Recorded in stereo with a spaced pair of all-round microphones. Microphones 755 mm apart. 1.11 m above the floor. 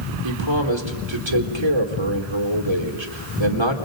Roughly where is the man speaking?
Right.